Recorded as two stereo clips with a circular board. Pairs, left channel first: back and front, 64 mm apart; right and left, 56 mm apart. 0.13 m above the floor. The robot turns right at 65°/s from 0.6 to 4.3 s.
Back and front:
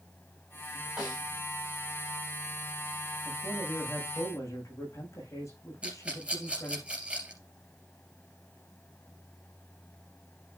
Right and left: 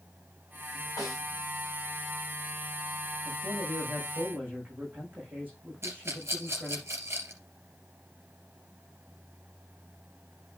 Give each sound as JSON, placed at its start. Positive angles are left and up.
{"t": 1.0, "sound": "a snare drum", "azimuth_deg": -75, "distance_m": 6.5}
{"t": 3.2, "sound": "a man speaking", "azimuth_deg": 80, "distance_m": 6.5}
{"t": 5.8, "sound": "a rattle", "azimuth_deg": 65, "distance_m": 3.0}